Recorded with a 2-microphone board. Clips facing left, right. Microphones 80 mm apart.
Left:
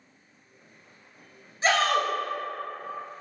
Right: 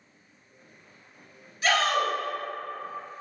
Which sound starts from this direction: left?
A shout, at 1.6 s.